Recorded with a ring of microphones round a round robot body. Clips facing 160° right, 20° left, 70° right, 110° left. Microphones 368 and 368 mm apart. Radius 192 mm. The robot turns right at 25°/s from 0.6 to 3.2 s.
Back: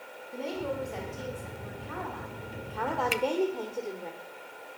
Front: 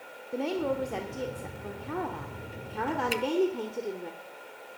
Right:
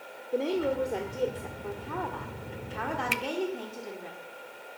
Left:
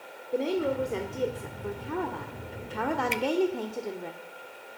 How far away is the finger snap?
About 0.7 m.